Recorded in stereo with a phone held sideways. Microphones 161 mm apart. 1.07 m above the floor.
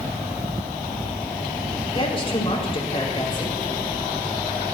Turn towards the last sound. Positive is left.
turn(degrees=35)  # may be behind; listen again after turning